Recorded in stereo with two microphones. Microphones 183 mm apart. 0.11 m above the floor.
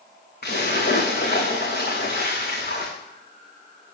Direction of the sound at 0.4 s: 60° left (ahead or behind).